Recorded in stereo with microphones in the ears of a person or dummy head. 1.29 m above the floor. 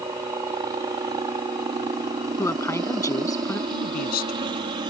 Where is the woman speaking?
20° left (ahead or behind).